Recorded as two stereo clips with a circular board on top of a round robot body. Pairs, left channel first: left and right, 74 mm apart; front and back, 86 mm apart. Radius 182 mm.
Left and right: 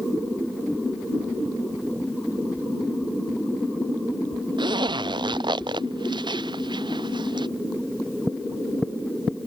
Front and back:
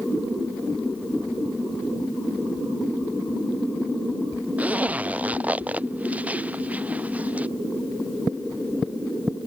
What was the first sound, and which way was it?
A zipper, 105° right.